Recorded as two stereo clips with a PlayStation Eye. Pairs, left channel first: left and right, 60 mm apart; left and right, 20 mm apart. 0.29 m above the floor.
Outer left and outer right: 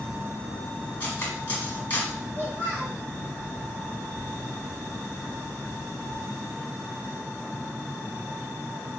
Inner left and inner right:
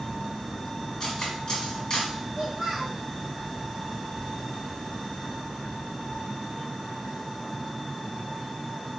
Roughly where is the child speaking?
Right.